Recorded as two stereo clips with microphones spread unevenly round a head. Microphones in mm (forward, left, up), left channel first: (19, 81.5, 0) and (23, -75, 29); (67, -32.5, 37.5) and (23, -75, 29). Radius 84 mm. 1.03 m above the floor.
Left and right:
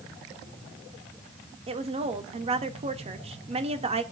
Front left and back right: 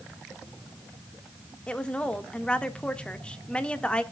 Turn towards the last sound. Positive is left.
turn(degrees=-30)